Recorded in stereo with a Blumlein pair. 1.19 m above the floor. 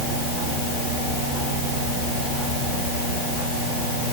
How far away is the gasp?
No gasp in this recording.